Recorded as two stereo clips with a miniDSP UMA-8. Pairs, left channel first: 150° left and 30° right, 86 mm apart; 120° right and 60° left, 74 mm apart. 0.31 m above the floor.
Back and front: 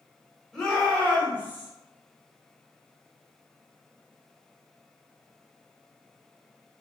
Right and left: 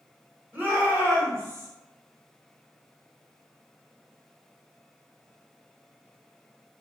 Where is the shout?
75° left, 1.0 m; by 1.7 s 95° left, 1.4 m.